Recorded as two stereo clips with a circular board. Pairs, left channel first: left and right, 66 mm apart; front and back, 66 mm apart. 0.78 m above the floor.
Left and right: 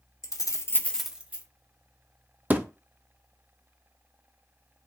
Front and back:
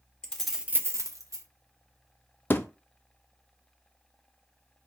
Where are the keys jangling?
75° left, 1.0 m; by 1.4 s 155° right, 1.1 m.